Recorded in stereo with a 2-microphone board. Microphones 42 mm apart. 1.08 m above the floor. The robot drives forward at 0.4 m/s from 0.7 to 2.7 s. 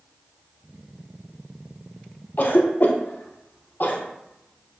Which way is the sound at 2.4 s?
55° left (ahead or behind).